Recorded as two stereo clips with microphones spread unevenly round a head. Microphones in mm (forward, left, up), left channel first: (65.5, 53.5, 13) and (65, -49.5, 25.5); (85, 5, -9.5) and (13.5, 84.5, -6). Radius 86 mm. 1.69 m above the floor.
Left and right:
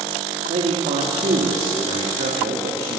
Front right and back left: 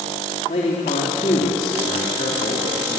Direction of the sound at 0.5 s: 90° right.